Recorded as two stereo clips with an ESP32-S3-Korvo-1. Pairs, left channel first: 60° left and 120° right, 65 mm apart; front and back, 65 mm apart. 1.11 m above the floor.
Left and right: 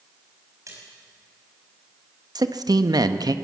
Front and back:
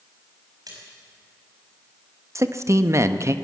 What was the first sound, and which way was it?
A splash, 160° right.